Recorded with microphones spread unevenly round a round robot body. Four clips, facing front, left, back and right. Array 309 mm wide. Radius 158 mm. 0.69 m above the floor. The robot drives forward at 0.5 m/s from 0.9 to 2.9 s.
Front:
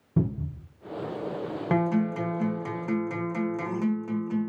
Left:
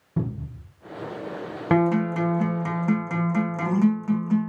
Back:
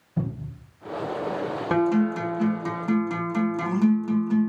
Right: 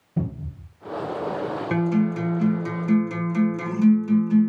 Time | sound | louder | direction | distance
0.2 | a cupboard door | right 1 dB, front 3 dB | 15° left | 3 m
1.7 | a guitar | left 3 dB, back 3 dB | 115° left | 3 m